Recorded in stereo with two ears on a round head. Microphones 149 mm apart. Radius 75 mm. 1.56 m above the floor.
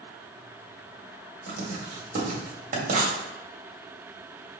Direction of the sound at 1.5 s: 45° right (ahead or behind).